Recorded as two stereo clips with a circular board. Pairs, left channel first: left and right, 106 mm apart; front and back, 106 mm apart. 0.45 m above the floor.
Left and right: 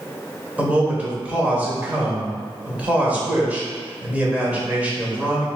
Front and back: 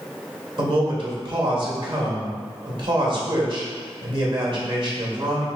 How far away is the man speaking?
About 1.3 m.